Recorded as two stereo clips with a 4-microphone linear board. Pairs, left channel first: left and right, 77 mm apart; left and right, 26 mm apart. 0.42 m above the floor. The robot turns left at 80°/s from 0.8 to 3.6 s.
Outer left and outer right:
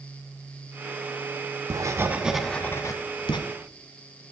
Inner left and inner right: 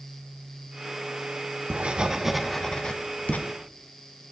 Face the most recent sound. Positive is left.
turn(degrees=85)